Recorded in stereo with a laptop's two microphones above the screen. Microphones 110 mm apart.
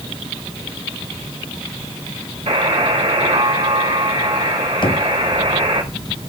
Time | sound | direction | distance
2.5 | a buzzer | 70° right (ahead or behind) | 2.5 m
4.8 | knocking | 45° left (ahead or behind) | 0.8 m